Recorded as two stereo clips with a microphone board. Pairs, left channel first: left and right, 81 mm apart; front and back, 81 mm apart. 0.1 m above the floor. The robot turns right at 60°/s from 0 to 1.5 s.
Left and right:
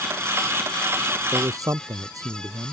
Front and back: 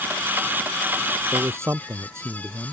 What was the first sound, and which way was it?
A man speaking, 140° right.